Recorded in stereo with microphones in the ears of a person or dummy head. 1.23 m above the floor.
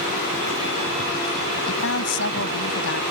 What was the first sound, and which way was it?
A woman speaking, 75° left (ahead or behind).